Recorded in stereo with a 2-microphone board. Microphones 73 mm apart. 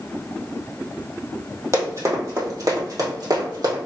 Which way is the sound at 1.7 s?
40° right (ahead or behind).